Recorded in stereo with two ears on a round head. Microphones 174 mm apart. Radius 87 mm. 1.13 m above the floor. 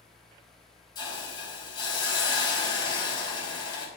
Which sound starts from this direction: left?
A hiss, at 0.9 s.